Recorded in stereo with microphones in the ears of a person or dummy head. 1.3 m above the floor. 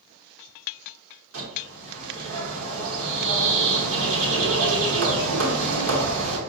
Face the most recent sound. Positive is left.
turn(degrees=-80)